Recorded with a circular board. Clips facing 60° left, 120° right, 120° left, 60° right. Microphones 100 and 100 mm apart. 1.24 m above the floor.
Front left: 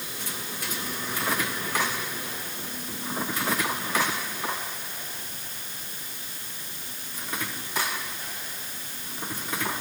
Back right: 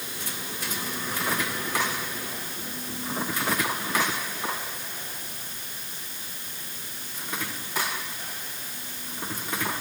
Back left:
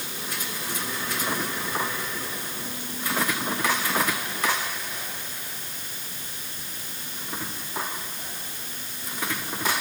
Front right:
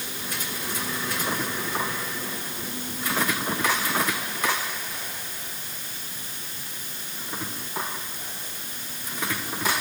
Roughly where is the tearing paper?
I don't hear tearing paper.